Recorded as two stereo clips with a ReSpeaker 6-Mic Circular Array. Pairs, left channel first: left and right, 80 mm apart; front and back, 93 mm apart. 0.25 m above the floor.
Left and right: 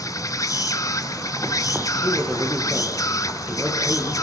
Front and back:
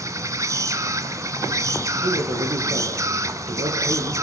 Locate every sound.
0.0 s an insect: 130° left, 0.8 m
2.0 s a man speaking: 175° right, 7 m